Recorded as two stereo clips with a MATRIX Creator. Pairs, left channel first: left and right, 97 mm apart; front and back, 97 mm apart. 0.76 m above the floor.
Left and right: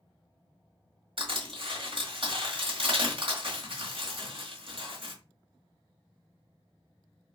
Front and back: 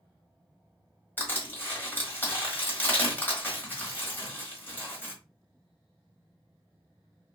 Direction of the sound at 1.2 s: 65° right.